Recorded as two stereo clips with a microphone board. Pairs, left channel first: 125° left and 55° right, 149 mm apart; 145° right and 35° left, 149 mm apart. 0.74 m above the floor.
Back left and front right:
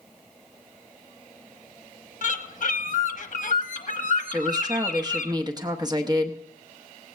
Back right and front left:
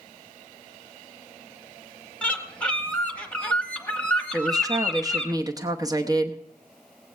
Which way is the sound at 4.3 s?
15° right.